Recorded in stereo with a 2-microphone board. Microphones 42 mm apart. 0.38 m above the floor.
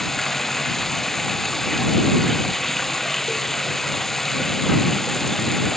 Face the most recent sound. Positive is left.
turn(degrees=5)  # may be behind; listen again after turning